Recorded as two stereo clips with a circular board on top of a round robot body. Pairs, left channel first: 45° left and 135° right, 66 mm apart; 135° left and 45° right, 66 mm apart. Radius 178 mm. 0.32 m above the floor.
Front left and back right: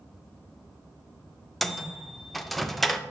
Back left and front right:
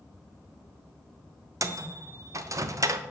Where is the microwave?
45° right, 0.8 m.